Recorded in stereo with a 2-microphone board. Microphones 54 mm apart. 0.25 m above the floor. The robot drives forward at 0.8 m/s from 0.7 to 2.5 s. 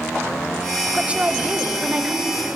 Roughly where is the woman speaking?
Centre.